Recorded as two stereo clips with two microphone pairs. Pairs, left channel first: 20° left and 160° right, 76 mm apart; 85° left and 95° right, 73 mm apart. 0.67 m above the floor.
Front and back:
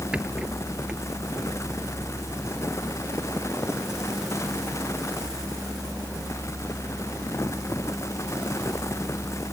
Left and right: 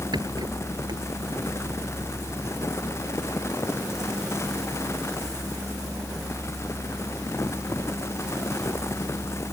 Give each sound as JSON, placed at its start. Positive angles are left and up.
{"t": 0.1, "sound": "a rattle", "azimuth_deg": -85}